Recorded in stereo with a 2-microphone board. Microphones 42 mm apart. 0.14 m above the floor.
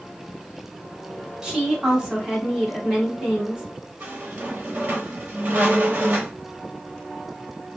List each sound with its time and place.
1.4 s a woman speaking: 20° right (ahead or behind), 1.1 m
4.0 s a squeak: 50° right (ahead or behind), 1.3 m